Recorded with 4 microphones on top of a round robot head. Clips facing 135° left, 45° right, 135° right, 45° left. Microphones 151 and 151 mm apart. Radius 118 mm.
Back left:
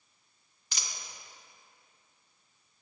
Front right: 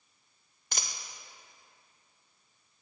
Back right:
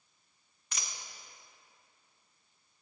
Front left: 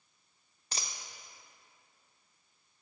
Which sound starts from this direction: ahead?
A dropped coin, at 0.7 s.